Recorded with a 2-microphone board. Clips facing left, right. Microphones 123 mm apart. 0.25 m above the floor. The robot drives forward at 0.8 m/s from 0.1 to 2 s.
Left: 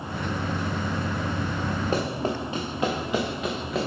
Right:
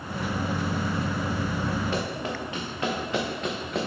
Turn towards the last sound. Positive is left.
turn(degrees=0)  # may be behind; listen again after turning